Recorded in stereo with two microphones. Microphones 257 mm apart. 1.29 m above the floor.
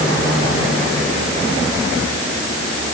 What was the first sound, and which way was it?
Only background noise.